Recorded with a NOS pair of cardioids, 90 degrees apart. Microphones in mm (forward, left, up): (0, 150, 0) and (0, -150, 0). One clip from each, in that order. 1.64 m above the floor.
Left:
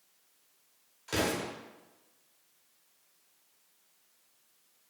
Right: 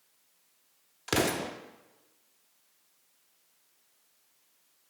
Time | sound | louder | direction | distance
1.1 | an explosion | right 3 dB | 50° right | 0.7 m